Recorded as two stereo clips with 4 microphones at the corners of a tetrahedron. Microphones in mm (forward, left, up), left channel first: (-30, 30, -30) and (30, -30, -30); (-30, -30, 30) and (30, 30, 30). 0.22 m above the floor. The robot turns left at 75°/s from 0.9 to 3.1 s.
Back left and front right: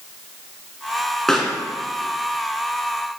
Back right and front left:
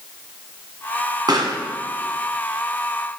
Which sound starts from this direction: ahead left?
A pop, at 1.3 s.